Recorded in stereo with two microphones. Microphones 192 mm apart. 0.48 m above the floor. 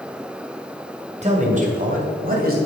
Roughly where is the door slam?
I don't hear a door slam.